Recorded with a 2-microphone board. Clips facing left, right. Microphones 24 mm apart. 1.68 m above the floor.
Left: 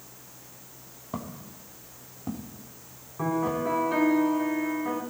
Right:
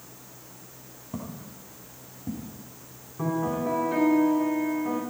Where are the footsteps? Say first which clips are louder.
Left 1 dB; 40° left (ahead or behind), 3 m; by 3.7 s 55° left (ahead or behind), 4 m.